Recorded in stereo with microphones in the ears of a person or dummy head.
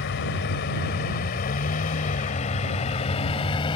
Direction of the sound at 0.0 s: 70° left (ahead or behind).